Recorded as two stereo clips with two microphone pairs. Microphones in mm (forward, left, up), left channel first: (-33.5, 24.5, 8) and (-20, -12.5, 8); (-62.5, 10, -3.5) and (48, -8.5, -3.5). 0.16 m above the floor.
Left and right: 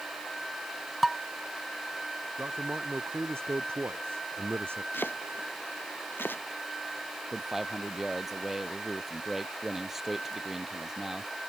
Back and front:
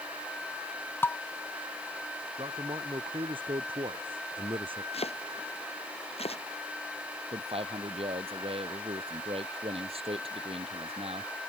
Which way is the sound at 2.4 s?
50° right.